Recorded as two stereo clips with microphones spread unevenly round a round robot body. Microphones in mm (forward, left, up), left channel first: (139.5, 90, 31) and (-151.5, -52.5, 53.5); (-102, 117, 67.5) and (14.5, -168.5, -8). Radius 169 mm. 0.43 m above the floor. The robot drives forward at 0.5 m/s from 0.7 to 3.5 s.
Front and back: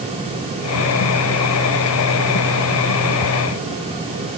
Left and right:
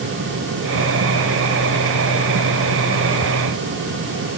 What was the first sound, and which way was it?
Only background noise.